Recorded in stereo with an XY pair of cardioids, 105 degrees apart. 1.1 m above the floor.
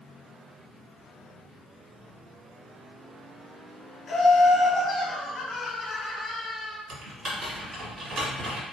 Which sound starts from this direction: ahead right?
Typing on a keyboard, at 6.9 s.